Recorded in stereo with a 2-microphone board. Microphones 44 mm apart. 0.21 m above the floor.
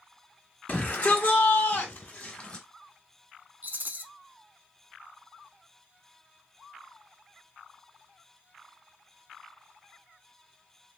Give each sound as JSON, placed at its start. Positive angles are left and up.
{"t": 0.7, "sound": "a shout", "side_deg": 30, "distance_m": 2.0}
{"t": 3.6, "sound": "a rattle", "side_deg": -40, "distance_m": 0.6}